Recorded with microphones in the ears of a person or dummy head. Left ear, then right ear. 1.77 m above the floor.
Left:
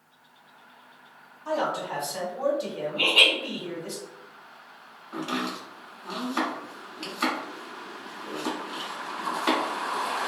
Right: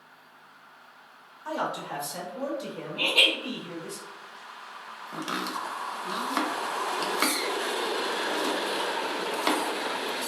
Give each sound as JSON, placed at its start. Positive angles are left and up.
{"t": 1.4, "sound": "a man speaking", "side_deg": -55, "distance_m": 1.0}
{"t": 3.0, "sound": "laughter", "side_deg": -55, "distance_m": 1.1}
{"t": 5.1, "sound": "chopping", "side_deg": -85, "distance_m": 0.6}